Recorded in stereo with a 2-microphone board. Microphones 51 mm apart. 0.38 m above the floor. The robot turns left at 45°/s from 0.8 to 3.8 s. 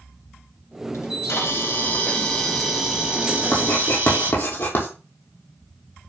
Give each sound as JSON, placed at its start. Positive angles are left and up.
{"t": 0.9, "sound": "a camera shutter", "azimuth_deg": 80, "distance_m": 2.5}
{"t": 3.5, "sound": "writing", "side_deg": 40, "distance_m": 3.0}